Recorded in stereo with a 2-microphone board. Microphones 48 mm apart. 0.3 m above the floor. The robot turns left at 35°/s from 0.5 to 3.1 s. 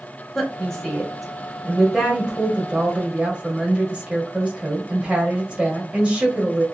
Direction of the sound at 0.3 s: 10° left (ahead or behind).